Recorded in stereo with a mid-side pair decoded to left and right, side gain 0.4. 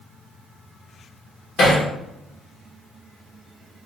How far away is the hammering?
About 1.0 m.